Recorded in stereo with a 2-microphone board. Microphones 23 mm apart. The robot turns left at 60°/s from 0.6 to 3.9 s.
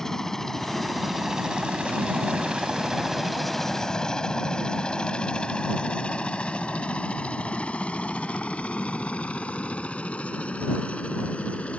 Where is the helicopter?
20° left (ahead or behind); by 11.8 s 65° left (ahead or behind).